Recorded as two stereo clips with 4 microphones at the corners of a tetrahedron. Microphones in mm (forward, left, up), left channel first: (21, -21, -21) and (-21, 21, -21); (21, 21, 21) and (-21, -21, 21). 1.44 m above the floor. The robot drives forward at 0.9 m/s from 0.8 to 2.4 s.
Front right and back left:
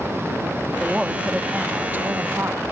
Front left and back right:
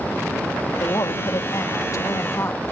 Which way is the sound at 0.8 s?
55° left.